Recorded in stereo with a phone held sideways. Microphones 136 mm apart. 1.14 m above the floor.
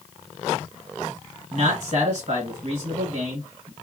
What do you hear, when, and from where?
1.5 s a man speaking: 50° right (ahead or behind), 1.7 m